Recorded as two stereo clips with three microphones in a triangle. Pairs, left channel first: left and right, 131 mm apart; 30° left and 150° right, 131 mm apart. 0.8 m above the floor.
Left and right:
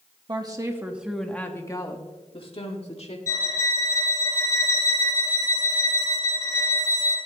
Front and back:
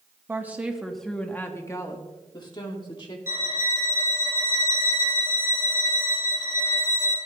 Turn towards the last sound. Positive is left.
turn(degrees=-80)